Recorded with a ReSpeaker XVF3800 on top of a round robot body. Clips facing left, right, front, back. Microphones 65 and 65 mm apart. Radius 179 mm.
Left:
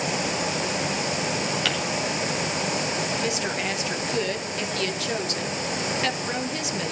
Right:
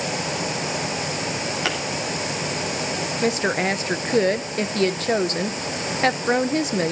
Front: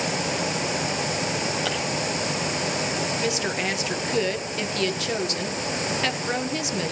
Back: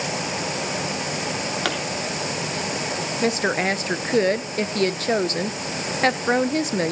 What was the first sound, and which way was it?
A pop, 155° right.